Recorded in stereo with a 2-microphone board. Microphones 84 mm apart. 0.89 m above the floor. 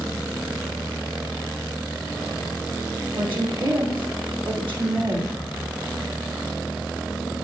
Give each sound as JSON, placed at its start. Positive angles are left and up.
{"t": 3.1, "sound": "a woman speaking", "side_deg": -75, "distance_m": 2.5}